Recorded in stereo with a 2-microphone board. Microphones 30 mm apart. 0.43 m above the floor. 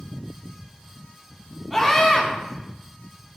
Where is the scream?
5° left (ahead or behind), 4.5 m.